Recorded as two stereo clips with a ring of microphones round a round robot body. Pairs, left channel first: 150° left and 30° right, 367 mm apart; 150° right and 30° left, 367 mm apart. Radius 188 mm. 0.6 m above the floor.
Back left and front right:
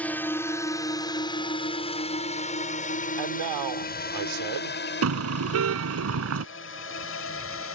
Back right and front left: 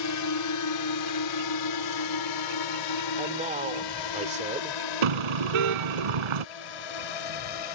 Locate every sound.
0.0 s a drone: 125° right; by 7.8 s 155° right
3.2 s a man speaking: 40° right
5.0 s a car horn: 25° left